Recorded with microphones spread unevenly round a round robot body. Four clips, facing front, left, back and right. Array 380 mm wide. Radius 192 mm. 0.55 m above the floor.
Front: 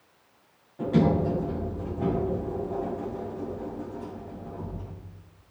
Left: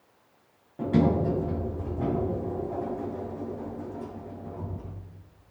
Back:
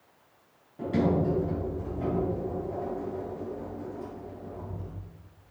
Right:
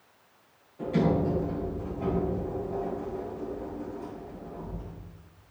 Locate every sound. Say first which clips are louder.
0.8 s a sliding door: left 2 dB, front 3 dB; 90° left, 3 m